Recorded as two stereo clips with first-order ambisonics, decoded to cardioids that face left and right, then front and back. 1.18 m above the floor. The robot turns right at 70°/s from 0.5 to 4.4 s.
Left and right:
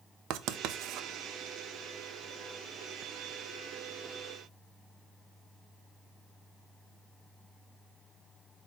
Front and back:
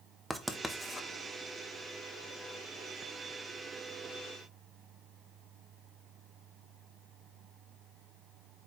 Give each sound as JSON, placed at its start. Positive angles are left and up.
{"t": 0.3, "sound": "writing", "azimuth_deg": -95, "distance_m": 0.7}